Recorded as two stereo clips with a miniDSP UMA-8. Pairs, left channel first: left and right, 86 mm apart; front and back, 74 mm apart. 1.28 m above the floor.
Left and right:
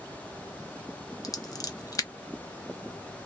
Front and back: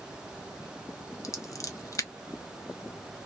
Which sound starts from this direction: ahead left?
Scissors, at 1.2 s.